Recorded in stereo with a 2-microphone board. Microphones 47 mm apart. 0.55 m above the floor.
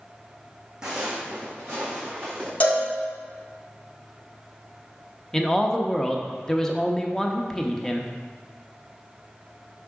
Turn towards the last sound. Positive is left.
turn(degrees=15)  # may be behind; listen again after turning